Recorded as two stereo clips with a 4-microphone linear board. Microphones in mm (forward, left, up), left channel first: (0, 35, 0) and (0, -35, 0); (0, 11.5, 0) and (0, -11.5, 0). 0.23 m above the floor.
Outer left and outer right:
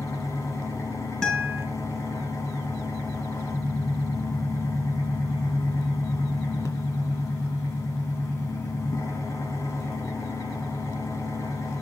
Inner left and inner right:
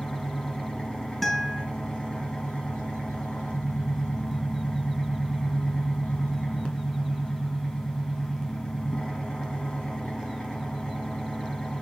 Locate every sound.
0.0 s an engine running: 45° left (ahead or behind), 2.5 m
1.2 s a guitar: 15° left (ahead or behind), 2.5 m